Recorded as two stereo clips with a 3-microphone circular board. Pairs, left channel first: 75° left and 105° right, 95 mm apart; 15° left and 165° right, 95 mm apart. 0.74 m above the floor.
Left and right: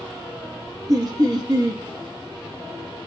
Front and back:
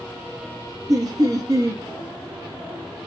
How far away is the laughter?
About 0.6 m.